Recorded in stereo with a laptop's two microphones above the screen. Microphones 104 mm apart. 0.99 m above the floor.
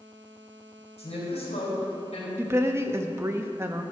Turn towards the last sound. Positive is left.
turn(degrees=-25)  # may be behind; listen again after turning